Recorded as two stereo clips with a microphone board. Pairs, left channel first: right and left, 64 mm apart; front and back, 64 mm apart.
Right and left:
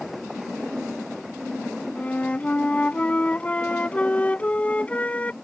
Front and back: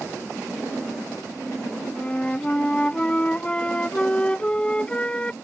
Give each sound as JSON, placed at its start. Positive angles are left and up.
{"t": 1.9, "sound": "a flute", "azimuth_deg": -50}